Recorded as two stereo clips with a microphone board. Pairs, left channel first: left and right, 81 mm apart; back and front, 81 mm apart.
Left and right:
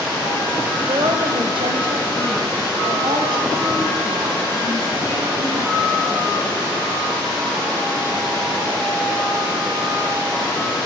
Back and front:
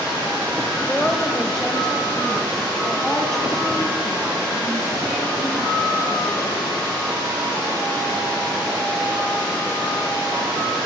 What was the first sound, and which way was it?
A woman speaking, 100° right.